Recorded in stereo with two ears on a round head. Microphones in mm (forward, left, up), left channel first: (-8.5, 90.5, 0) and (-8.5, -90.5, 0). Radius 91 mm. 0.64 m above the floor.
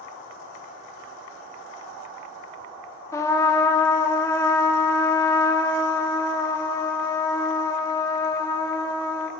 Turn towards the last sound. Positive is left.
turn(degrees=15)  # may be behind; listen again after turning